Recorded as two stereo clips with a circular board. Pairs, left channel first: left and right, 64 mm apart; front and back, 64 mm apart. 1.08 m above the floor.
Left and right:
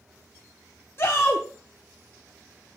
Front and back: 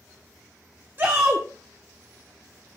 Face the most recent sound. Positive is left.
turn(degrees=130)